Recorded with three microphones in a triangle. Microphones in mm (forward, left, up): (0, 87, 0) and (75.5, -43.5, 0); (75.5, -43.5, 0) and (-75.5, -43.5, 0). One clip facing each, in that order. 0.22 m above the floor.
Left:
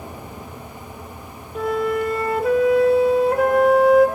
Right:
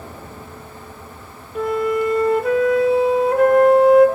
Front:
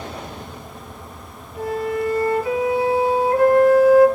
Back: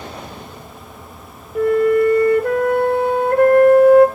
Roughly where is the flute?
Behind right.